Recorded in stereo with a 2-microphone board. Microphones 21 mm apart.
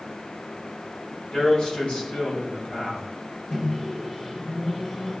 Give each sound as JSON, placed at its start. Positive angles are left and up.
{"t": 1.3, "sound": "a man speaking", "side_deg": 65, "distance_m": 3.5}
{"t": 3.5, "sound": "a microwave", "side_deg": 50, "distance_m": 5.0}